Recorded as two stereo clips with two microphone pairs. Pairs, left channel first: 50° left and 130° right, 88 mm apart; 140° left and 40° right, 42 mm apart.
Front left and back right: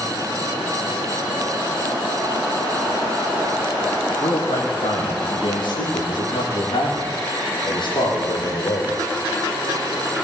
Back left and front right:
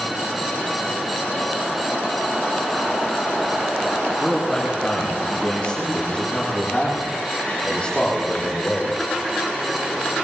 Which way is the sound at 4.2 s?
60° left.